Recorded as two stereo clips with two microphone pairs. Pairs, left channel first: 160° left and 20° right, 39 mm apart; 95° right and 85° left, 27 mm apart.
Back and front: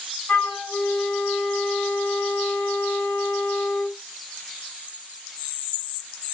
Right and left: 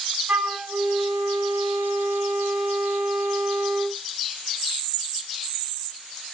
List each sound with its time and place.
0.3 s a flute: 130° left, 1.1 m